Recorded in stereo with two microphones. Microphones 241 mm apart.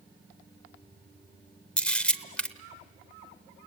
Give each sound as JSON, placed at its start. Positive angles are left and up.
{"t": 1.8, "sound": "a camera shutter", "side_deg": 5, "distance_m": 1.0}